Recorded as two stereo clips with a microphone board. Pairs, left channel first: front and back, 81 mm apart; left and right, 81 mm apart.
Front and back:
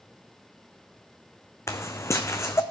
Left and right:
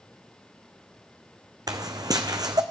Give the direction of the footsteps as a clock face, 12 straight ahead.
2 o'clock.